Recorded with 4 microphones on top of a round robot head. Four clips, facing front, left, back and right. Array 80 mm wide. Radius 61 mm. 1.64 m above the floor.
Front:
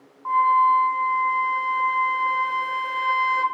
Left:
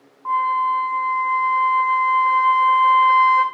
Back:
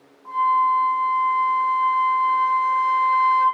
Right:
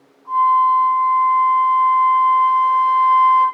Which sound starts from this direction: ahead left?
A flute, at 0.2 s.